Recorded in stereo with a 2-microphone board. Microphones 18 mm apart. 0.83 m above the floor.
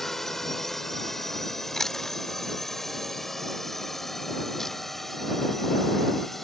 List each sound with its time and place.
0.0 s a drone: 20° left (ahead or behind); by 6.5 s 15° left (ahead or behind)
1.7 s chewing: 25° left (ahead or behind)